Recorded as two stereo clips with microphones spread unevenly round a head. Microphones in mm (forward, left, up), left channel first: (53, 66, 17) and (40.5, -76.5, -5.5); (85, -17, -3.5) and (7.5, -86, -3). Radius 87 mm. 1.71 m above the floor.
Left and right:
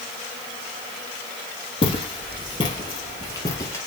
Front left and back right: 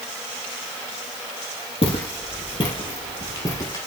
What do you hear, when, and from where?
1.8 s footsteps: 55° left, 2.5 m; by 3.8 s 65° left, 1.9 m